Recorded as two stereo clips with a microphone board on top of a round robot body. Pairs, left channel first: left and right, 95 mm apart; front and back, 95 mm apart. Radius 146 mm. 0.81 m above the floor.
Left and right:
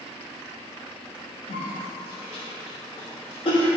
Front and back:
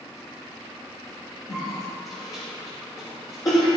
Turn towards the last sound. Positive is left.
turn(degrees=55)